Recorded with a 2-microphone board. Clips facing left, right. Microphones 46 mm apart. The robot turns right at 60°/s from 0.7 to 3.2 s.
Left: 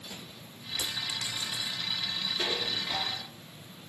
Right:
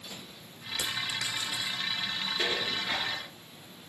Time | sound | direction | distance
0.8 | a dropped coin | 45° right (ahead or behind) | 1.3 m
2.4 | dishes clattering | 160° right | 2 m